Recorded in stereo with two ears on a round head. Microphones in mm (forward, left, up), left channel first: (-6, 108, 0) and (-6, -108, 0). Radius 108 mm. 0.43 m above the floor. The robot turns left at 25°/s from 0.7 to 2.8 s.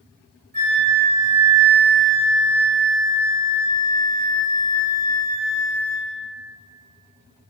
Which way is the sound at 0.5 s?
145° right.